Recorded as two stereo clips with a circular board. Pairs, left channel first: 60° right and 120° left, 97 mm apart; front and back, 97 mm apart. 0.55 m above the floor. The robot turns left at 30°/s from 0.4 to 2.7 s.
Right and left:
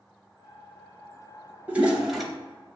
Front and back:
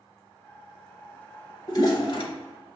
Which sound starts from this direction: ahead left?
A toilet flushing, at 1.7 s.